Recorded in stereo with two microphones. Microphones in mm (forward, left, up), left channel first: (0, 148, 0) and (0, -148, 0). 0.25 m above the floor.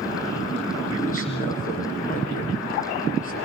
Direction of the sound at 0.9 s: 25° left (ahead or behind).